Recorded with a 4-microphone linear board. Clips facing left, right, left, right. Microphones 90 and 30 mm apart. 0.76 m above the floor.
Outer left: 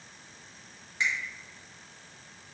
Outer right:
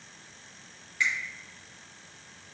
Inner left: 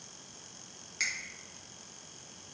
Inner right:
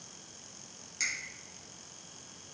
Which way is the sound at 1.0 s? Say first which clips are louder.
Outer right 1 dB, inner left 1 dB; 20° left (ahead or behind).